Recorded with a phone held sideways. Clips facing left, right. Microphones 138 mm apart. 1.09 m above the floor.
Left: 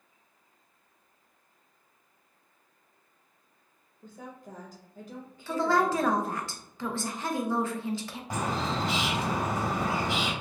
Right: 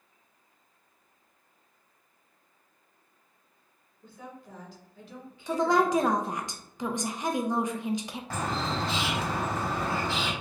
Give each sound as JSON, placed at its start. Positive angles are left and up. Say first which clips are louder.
{"t": 4.0, "sound": "a woman speaking", "louder": "left 1 dB", "side_deg": 45, "distance_m": 1.1}
{"t": 5.5, "sound": "a woman speaking", "louder": "right 2 dB", "side_deg": -20, "distance_m": 0.5}
{"t": 8.3, "sound": "a bird", "louder": "left 1 dB", "side_deg": 20, "distance_m": 1.0}